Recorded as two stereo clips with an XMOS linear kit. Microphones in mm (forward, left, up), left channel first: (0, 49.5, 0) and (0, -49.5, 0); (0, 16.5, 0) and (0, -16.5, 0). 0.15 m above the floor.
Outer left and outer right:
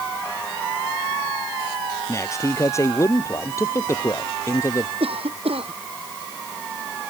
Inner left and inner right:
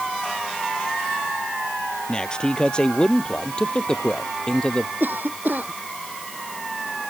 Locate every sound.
2.1 s a man speaking: 30° left (ahead or behind)
5.0 s a cough: 70° right (ahead or behind)